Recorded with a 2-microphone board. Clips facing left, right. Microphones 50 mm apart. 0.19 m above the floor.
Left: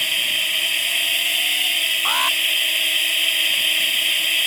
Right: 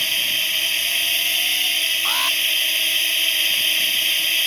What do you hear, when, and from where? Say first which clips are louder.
0.0 s a drone: left 1 dB; 5° left (ahead or behind)
2.0 s an alarm: left 4 dB; 20° left (ahead or behind)